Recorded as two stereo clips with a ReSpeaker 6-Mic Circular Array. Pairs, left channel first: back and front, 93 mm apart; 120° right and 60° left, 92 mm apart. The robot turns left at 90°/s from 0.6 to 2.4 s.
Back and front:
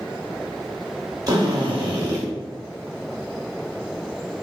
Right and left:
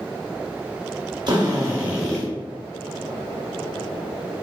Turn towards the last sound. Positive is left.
turn(degrees=-60)